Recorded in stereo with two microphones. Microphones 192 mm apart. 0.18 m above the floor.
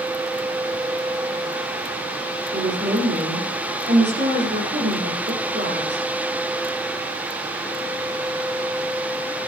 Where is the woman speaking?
70° right (ahead or behind), 8 m.